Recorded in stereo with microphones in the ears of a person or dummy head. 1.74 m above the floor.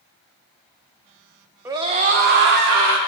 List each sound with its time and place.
1.6 s a scream: 15° right (ahead or behind), 0.6 m; by 3.0 s 70° right (ahead or behind), 1.1 m